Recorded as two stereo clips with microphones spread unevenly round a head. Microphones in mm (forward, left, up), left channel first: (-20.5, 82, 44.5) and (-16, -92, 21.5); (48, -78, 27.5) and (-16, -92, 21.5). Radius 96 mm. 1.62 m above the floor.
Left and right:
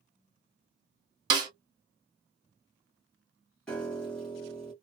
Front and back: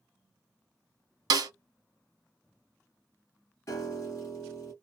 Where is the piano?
15° left, 1.1 m.